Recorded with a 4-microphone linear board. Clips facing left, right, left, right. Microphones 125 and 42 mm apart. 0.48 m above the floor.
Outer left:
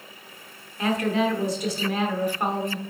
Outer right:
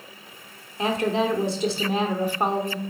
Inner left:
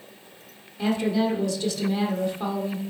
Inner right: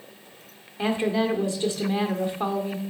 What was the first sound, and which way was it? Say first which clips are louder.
A woman speaking: even, even; 25° right (ahead or behind).